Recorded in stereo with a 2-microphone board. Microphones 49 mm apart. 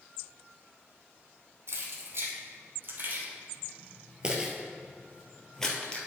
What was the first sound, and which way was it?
Keys jangling, 60° right (ahead or behind).